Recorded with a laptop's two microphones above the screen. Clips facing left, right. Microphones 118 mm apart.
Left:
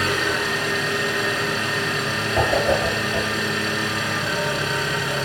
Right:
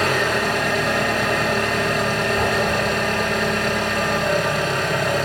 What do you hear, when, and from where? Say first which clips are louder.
0.0 s an engine running: right 3 dB; 50° right (ahead or behind), 4 m
2.4 s a whoosh: left 6 dB; 70° left (ahead or behind), 7 m